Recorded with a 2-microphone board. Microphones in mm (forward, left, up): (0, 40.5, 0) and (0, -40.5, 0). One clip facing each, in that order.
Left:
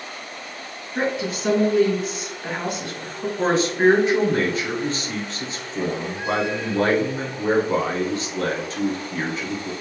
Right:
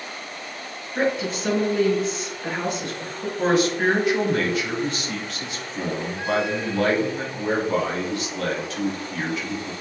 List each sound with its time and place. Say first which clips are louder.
0.9 s a woman speaking: right 1 dB; 5° left (ahead or behind), 1.1 m
3.4 s a man speaking: left 1 dB; 30° left (ahead or behind), 1.2 m